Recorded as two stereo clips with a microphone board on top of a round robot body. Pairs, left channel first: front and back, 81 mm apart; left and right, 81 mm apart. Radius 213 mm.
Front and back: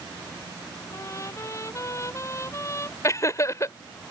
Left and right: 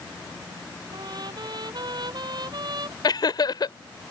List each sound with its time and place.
0.9 s a trumpet: 55° right
3.0 s laughter: 55° left